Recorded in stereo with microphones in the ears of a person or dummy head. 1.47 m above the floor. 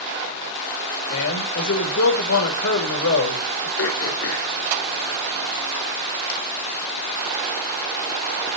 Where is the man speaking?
80° left, 3 m.